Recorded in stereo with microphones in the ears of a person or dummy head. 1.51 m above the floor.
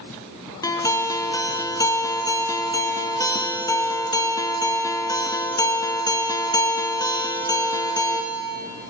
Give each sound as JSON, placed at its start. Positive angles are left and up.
{"t": 0.6, "sound": "a guitar", "side_deg": 20, "distance_m": 0.5}